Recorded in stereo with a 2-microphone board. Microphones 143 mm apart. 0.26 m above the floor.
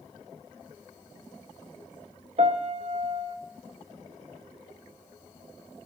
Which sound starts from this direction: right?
A piano, at 2.4 s.